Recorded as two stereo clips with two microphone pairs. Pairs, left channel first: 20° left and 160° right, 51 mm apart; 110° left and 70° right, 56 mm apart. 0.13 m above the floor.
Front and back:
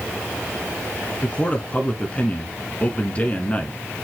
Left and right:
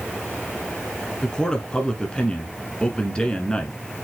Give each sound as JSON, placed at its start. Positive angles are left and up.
{"t": 1.2, "sound": "a man speaking", "azimuth_deg": 55, "distance_m": 1.4}